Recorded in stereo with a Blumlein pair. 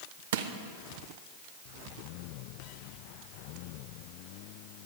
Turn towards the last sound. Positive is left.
turn(degrees=-55)